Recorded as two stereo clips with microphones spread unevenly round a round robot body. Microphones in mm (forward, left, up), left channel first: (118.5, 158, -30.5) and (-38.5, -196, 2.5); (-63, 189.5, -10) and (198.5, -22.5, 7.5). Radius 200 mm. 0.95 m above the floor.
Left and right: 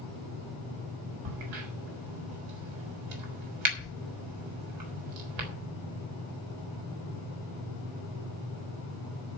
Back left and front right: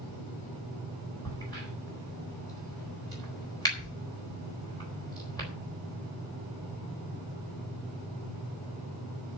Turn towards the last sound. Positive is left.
turn(degrees=-140)